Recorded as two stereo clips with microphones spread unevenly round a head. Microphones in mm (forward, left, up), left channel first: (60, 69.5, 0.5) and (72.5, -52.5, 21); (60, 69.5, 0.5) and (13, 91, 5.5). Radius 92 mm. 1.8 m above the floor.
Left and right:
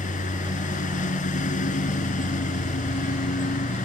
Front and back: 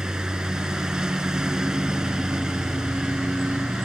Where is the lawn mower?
80° left.